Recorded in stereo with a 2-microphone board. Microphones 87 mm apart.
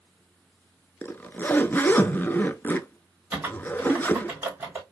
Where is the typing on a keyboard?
20° right (ahead or behind), 3 m.